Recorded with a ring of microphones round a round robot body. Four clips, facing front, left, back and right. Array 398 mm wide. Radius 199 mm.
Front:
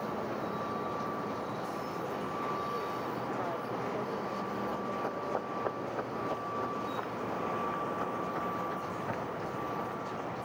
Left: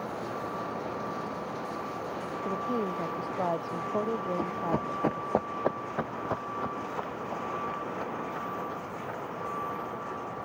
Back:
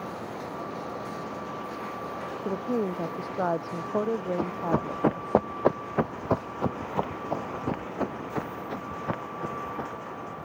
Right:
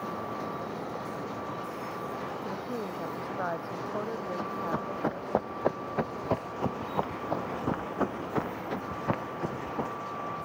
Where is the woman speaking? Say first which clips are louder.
Left 4 dB, back 6 dB; 160° left; by 5.4 s 155° left.